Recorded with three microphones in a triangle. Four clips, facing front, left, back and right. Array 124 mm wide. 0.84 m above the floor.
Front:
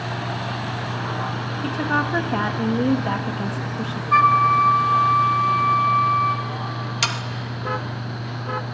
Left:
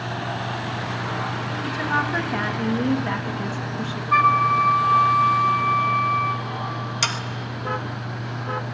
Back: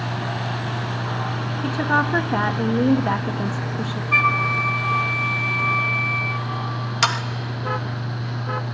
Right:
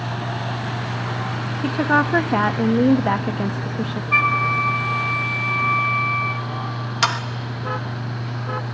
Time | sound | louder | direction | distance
1.6 | a woman speaking | right 7 dB, back 2 dB | 95° right | 0.9 m
4.1 | a flute | left 4 dB, front 7 dB | 45° left | 0.7 m
7.0 | sawing | right 8 dB, back 7 dB | 120° right | 0.7 m